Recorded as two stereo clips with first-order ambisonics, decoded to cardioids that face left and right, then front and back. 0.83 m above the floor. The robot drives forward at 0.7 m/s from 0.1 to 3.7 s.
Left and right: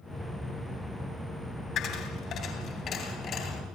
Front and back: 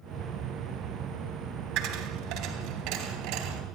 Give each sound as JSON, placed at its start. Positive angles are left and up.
{"t": 1.8, "sound": "a dropped coin", "azimuth_deg": 140, "distance_m": 3.0}